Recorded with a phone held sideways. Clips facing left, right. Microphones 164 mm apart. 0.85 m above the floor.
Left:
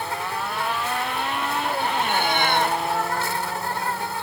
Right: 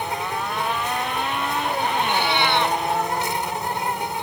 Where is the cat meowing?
50° left (ahead or behind).